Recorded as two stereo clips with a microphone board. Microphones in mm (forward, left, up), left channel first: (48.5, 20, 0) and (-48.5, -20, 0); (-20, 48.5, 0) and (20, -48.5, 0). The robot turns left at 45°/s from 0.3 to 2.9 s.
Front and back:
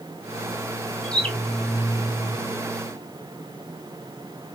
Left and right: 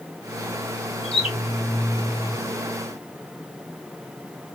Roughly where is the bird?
Left.